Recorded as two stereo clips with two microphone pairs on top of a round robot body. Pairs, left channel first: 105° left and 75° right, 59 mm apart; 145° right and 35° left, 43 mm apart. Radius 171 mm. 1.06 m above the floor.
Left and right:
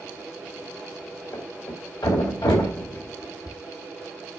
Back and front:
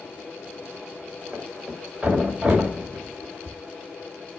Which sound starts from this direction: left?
A thud, at 1.3 s.